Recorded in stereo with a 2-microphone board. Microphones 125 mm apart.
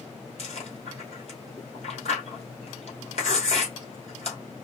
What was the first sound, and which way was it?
Chewing, 55° left (ahead or behind).